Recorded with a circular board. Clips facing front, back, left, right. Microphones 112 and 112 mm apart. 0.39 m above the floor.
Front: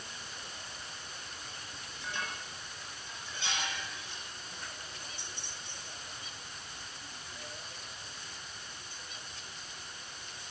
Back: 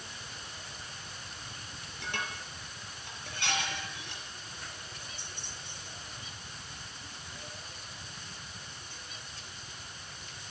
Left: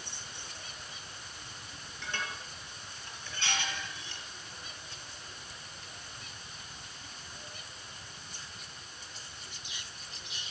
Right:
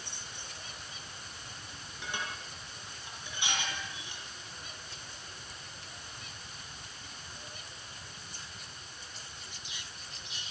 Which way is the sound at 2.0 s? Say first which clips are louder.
Back 2 dB, even; 165° right.